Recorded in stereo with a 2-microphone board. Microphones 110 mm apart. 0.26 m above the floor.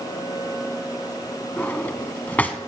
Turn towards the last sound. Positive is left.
turn(degrees=15)  # may be behind; listen again after turning